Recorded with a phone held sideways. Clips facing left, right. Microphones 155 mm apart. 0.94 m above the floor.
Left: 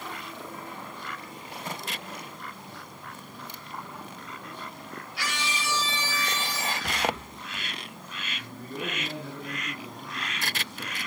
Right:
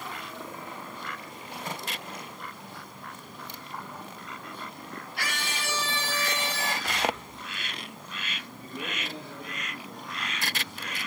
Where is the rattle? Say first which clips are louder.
Left 1 dB; 70° left (ahead or behind), 3.5 m.